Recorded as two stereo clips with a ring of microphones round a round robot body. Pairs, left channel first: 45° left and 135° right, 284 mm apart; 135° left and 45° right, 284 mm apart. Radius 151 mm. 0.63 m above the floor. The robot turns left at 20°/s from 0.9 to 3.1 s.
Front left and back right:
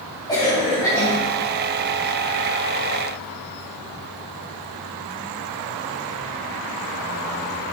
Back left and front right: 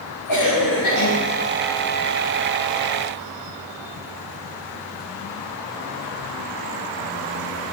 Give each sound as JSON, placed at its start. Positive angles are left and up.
{"t": 0.3, "sound": "a cough", "azimuth_deg": 120, "distance_m": 3.5}